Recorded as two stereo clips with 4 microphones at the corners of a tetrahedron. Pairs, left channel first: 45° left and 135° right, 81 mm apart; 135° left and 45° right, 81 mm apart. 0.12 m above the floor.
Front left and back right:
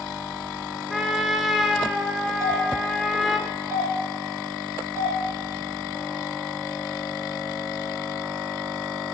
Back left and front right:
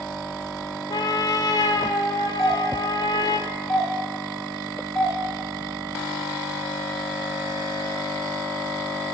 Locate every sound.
0.9 s a trumpet: 135° left, 0.8 m
2.4 s a doorbell: 140° right, 2.5 m